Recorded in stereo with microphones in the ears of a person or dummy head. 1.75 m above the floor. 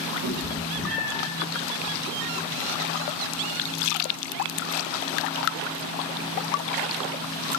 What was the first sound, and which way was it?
A cat meowing, 40° right (ahead or behind).